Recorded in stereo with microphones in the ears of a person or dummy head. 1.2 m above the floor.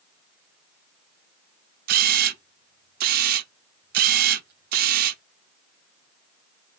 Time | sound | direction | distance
1.9 | a camera shutter | 50° right (ahead or behind) | 0.7 m